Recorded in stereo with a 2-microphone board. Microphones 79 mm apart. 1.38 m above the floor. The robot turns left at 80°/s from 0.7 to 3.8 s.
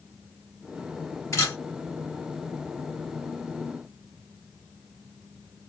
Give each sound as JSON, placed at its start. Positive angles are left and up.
{"t": 1.3, "sound": "a camera shutter", "side_deg": 40, "distance_m": 1.3}